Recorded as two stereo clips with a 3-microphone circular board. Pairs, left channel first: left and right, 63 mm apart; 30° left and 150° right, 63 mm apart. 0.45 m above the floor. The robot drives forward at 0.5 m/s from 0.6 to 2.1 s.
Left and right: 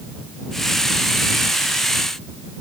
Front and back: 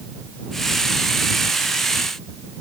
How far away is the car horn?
I don't hear a car horn.